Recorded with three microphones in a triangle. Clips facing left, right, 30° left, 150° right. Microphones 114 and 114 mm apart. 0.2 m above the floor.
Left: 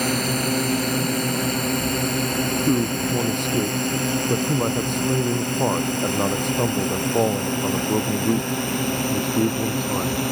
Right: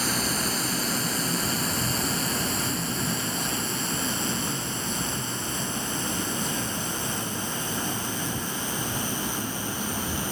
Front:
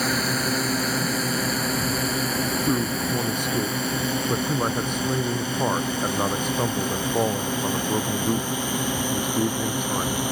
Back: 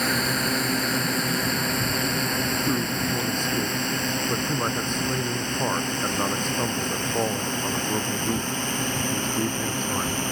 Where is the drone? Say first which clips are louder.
Left 6 dB, front 1 dB; 115° left; by 10.3 s 110° left.